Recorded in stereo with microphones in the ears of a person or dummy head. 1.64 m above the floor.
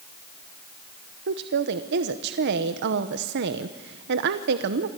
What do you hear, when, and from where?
1.3 s a woman speaking: 55° right (ahead or behind), 0.9 m